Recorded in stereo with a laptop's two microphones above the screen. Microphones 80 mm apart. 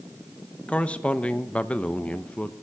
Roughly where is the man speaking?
Centre.